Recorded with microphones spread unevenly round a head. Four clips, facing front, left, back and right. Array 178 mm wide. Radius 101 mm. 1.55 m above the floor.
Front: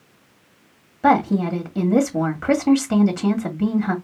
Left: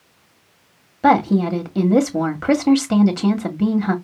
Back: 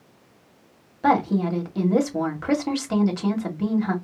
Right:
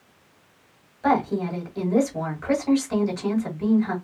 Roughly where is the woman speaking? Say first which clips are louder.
Left 7 dB, front 3 dB; ahead left.